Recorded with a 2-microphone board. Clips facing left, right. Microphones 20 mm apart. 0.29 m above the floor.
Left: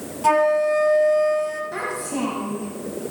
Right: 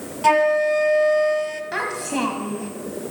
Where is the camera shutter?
I don't hear a camera shutter.